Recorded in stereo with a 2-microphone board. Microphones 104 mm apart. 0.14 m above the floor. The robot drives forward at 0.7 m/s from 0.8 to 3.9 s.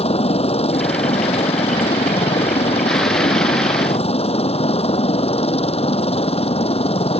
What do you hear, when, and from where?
0.0 s a helicopter: 75° left (ahead or behind); by 7.2 s 70° left (ahead or behind)